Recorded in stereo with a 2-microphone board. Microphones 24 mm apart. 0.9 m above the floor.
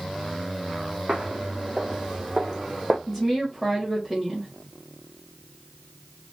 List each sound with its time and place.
1.1 s footsteps: 45° right (ahead or behind), 2.0 m; by 3.0 s 15° right (ahead or behind), 1.6 m
3.1 s a woman speaking: 20° right (ahead or behind), 2 m